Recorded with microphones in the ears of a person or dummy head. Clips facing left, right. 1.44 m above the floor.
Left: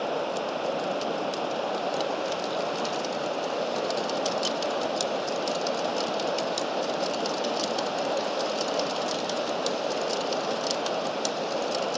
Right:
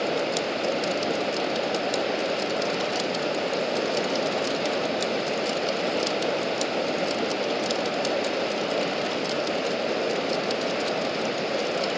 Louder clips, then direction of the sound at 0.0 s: Right 3 dB; 25° right (ahead or behind).